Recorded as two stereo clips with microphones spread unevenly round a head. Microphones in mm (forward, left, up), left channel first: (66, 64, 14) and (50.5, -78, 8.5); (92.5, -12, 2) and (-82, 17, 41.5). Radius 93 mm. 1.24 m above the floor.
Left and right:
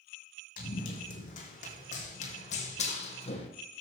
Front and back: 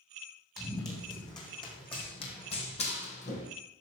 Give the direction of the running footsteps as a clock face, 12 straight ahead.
10 o'clock.